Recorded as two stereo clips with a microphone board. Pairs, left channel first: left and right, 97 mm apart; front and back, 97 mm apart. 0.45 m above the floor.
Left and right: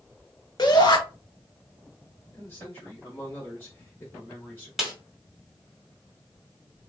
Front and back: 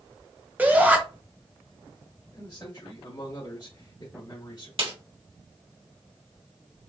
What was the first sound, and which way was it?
A shout, 110° left.